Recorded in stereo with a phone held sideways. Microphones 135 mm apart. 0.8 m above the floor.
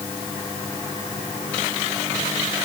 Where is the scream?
No scream in this recording.